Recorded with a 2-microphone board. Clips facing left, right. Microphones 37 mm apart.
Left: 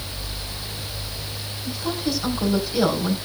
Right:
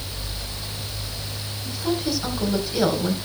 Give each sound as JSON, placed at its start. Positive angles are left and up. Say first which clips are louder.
{"t": 1.6, "sound": "a woman speaking", "louder": "right 1 dB", "side_deg": -5, "distance_m": 3.5}